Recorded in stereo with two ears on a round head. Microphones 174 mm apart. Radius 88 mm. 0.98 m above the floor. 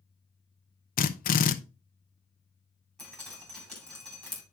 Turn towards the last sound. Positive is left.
turn(degrees=0)  # may be behind; listen again after turning